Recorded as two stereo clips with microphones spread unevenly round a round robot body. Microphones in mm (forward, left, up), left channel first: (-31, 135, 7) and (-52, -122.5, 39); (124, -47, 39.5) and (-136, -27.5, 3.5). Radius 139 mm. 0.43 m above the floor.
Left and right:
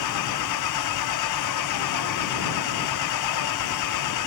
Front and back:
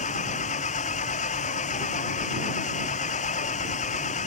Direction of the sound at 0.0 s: 60° left.